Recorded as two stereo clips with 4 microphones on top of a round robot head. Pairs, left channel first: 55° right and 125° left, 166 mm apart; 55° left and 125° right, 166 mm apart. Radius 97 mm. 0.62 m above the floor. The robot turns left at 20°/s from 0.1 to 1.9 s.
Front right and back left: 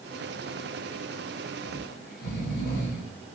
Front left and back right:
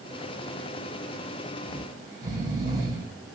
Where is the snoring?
55° right, 1.1 m; by 3.4 s 60° right, 1.1 m.